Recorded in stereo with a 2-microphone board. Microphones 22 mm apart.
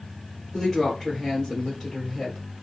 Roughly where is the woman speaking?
Left.